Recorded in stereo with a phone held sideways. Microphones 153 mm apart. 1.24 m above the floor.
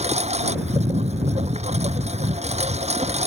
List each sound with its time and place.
0.0 s a lawn mower: 40° right (ahead or behind)